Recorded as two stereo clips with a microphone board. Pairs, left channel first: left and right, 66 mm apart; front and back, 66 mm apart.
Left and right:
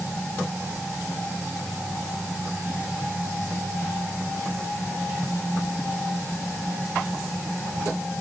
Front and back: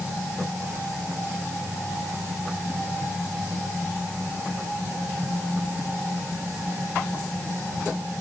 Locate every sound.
Only background noise.